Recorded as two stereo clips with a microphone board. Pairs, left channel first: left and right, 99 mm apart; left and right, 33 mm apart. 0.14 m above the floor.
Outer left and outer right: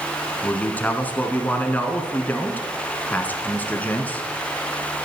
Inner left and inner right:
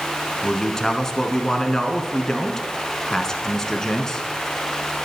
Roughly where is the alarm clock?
No alarm clock in this recording.